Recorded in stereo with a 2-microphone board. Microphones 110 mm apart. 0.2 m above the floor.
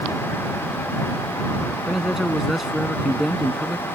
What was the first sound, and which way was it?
A man speaking, 5° right (ahead or behind).